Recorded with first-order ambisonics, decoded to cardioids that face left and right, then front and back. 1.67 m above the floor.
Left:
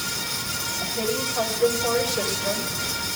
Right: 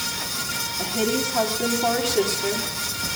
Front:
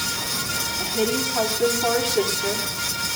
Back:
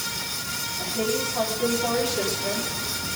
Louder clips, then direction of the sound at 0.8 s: Right 3 dB, front 1 dB; 90° right.